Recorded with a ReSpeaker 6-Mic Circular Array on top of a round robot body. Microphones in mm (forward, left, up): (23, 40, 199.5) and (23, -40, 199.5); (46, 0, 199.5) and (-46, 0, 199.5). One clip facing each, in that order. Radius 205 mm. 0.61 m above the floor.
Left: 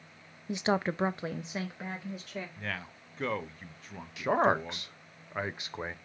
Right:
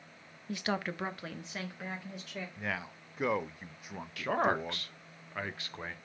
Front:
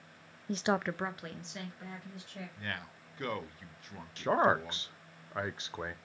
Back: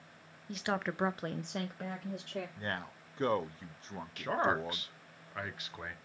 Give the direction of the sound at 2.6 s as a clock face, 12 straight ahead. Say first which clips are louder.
Right 1 dB, back 3 dB; 5 o'clock.